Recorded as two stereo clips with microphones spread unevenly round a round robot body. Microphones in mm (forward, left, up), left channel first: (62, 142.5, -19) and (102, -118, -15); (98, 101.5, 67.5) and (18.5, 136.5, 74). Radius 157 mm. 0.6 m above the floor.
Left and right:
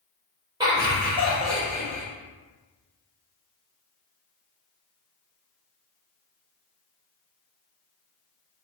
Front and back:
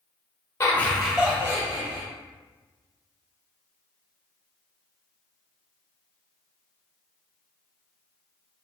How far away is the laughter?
About 0.7 m.